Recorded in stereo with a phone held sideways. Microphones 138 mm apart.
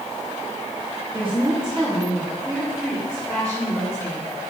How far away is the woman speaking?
About 1.4 m.